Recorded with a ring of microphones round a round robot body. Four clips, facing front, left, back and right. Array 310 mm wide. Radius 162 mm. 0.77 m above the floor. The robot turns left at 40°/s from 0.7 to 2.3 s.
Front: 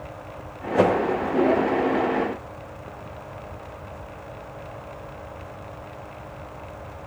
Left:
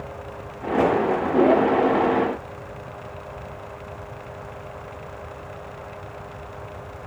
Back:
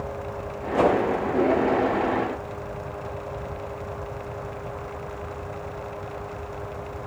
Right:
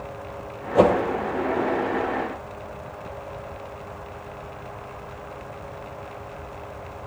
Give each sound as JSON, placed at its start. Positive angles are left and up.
{"t": 0.8, "sound": "a whoosh", "azimuth_deg": -65, "distance_m": 1.6}